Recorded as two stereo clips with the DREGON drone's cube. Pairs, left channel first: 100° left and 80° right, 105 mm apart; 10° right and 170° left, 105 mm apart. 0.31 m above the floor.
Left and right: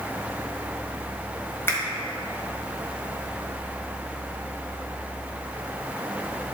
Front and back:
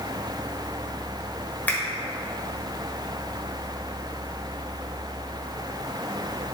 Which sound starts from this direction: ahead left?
A finger snap, at 1.7 s.